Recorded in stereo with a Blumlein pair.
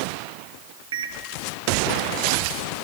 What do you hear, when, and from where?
0.9 s a microwave: 65° right, 0.7 m